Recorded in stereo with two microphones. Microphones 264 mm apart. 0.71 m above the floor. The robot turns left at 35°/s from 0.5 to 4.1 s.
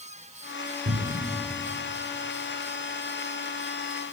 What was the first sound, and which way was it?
A cupboard door, 55° right (ahead or behind).